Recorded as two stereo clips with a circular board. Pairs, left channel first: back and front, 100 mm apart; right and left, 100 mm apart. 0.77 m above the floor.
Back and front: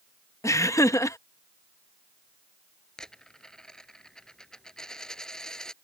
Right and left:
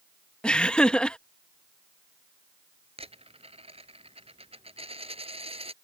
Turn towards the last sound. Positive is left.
turn(degrees=95)